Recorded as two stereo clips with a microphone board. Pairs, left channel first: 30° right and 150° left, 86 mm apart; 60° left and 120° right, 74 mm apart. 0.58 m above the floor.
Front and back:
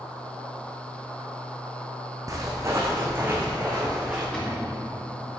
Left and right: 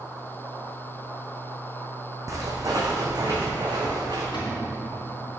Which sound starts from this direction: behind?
Footsteps, at 2.3 s.